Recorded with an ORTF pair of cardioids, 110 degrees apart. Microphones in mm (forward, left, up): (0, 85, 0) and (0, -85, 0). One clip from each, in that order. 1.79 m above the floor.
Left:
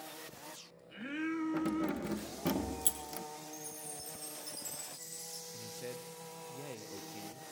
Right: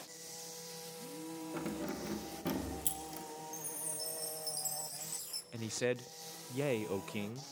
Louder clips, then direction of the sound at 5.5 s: Right 12 dB; 65° right.